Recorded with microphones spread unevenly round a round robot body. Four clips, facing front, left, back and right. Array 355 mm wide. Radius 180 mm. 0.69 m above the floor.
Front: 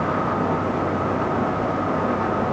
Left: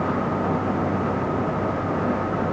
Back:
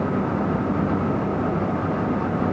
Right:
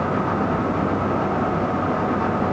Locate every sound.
Only background noise.